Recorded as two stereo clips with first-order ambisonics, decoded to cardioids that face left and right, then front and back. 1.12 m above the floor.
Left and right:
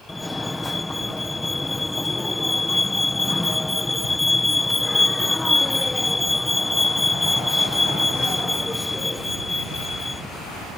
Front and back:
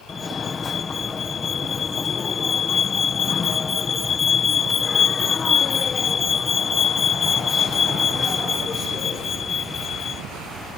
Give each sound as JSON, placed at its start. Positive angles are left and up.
{"t": 0.1, "sound": "a fire alarm", "azimuth_deg": 15}